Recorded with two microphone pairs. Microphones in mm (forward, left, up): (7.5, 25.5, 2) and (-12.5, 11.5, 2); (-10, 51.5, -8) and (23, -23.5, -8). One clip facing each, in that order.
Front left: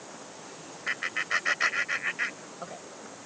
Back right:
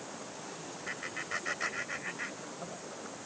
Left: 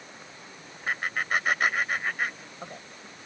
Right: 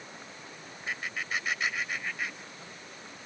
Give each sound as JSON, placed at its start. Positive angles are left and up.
{"t": 0.9, "sound": "laughter", "azimuth_deg": 80}